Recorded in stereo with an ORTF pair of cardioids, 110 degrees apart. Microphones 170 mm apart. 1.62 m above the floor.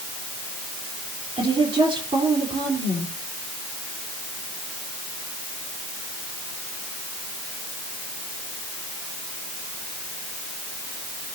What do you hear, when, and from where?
1.4 s a woman speaking: 30° right, 4.5 m